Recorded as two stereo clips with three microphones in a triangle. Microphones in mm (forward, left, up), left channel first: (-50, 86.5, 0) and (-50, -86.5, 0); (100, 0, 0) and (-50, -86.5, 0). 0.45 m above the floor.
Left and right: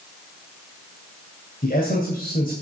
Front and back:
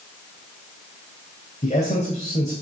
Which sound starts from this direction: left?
A man speaking, at 1.6 s.